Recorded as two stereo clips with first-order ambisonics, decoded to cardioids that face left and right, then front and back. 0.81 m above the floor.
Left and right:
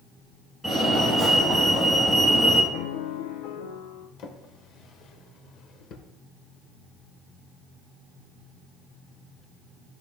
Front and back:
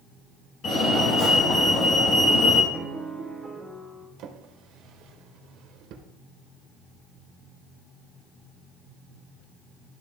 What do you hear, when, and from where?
0.6 s a fire alarm: 5° left, 2.0 m
2.7 s a piano: 100° left, 0.8 m
4.2 s a drawer: 140° left, 0.9 m